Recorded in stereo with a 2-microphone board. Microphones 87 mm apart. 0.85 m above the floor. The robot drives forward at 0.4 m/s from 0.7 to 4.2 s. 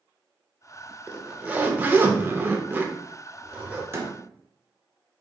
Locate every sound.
1.1 s a zipper: 15° right (ahead or behind), 0.7 m
3.9 s a door slam: 30° right (ahead or behind), 0.7 m; by 4.2 s 25° right (ahead or behind), 0.7 m